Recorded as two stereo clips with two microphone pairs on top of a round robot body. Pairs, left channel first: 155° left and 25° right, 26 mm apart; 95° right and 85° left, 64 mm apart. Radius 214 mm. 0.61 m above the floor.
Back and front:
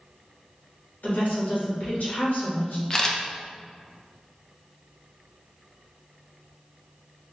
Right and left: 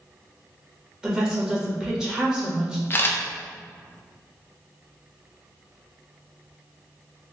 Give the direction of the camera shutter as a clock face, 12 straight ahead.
4 o'clock.